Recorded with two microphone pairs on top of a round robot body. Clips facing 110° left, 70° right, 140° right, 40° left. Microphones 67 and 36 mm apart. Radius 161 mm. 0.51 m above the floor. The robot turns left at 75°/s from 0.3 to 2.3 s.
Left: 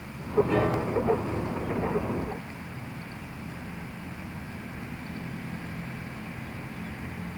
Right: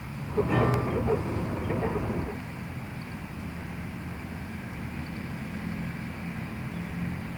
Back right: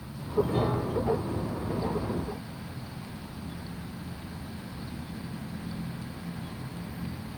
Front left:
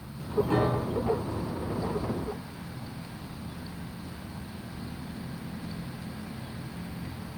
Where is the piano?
15° left, 8.5 m; by 1.1 s 30° right, 8.5 m.